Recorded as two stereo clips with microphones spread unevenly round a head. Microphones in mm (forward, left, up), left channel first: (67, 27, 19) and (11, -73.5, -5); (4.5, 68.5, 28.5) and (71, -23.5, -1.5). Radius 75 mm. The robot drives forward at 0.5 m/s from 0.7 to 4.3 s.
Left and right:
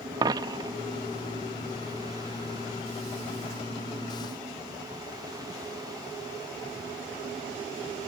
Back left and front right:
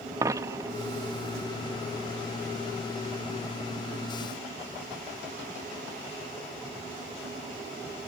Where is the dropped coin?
120° right.